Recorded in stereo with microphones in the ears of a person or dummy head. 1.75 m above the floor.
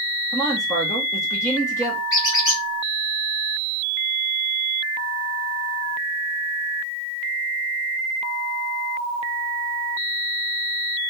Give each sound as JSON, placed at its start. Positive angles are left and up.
{"t": 0.3, "sound": "a man speaking", "side_deg": 20, "distance_m": 1.4}
{"t": 2.1, "sound": "a squeak", "side_deg": 30, "distance_m": 1.6}